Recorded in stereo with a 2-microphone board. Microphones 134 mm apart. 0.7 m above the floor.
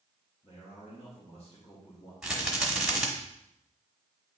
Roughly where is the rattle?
Centre.